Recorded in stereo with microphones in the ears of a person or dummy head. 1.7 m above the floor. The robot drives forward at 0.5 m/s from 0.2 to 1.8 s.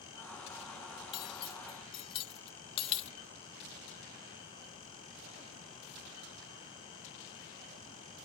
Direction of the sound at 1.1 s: 30° left (ahead or behind).